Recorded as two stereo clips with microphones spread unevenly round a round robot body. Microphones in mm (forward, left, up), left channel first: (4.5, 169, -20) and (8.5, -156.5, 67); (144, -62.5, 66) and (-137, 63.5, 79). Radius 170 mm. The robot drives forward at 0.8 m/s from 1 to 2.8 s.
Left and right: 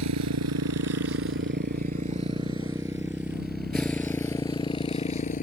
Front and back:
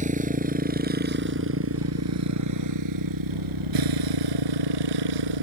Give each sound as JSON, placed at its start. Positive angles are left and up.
{"t": 0.0, "sound": "a motorcycle", "azimuth_deg": -135}